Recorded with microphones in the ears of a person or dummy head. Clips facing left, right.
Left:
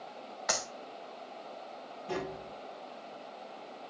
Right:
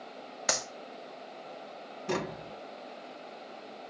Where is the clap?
40° right (ahead or behind), 1.6 m.